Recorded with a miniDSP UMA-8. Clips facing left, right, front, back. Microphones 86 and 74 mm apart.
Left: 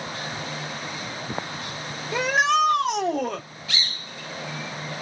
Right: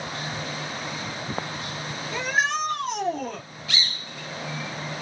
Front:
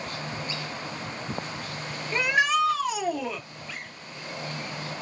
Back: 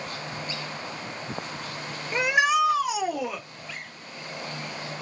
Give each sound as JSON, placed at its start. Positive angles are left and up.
{"t": 2.1, "sound": "a shout", "azimuth_deg": 100, "distance_m": 1.3}